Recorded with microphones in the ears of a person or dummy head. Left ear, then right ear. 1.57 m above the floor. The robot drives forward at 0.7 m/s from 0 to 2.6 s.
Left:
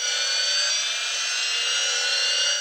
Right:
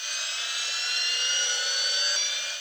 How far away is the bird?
No bird in this recording.